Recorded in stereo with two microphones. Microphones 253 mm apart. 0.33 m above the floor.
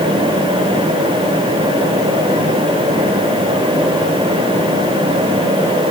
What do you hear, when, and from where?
Only background noise.